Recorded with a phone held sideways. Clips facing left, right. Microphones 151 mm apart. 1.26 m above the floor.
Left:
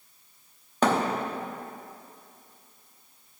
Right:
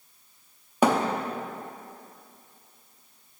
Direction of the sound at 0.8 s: 10° right (ahead or behind).